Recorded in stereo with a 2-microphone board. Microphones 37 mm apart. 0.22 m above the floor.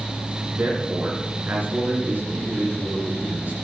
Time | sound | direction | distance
0.5 | a man speaking | 55° right (ahead or behind) | 3 m